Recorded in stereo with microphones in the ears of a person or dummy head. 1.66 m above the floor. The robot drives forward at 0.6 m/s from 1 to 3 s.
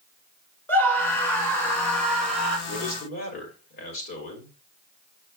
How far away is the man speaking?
About 4 m.